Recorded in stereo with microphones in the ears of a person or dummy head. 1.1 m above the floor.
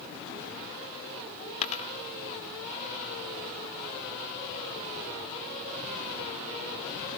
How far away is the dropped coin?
About 0.9 m.